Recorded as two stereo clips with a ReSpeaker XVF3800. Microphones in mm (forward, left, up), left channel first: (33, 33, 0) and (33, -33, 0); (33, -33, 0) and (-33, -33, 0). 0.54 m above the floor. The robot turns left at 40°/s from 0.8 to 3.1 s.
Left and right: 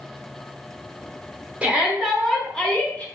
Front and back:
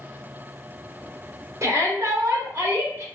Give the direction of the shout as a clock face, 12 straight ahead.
5 o'clock.